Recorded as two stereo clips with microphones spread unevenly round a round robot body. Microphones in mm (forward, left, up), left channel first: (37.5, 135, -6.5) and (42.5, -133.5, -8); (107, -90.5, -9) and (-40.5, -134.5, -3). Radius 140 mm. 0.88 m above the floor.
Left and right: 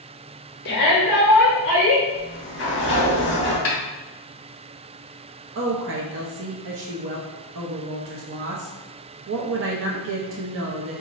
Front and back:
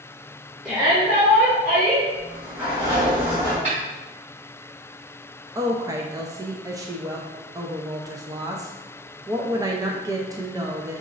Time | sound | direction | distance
0.7 | a shout | 110° left | 0.7 m
2.1 | a sliding door | 115° left | 1.2 m
3.6 | a snare drum | 135° left | 1.0 m
5.5 | a woman speaking | 100° right | 0.5 m